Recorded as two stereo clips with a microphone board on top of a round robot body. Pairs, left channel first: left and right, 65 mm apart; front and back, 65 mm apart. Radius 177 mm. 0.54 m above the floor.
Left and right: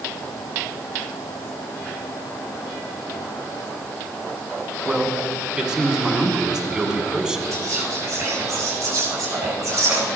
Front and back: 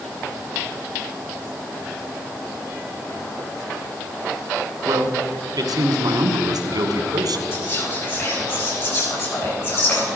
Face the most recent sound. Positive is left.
turn(degrees=-40)